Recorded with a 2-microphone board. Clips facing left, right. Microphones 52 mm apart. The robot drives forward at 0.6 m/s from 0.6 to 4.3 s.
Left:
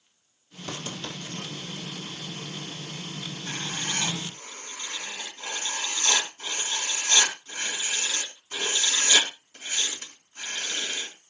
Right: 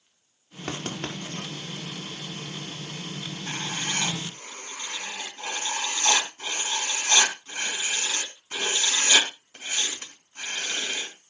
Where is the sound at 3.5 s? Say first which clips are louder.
Right 2 dB; 35° right (ahead or behind), 3 m; by 11.1 s 30° right (ahead or behind), 3.5 m.